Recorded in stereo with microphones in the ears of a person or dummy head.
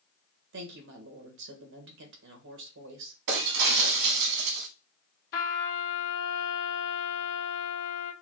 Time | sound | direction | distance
0.5 | a woman speaking | 65° right (ahead or behind) | 1.6 m
3.3 | breaking glass | 65° right (ahead or behind) | 1.2 m
5.3 | a trumpet | 60° left (ahead or behind) | 1.6 m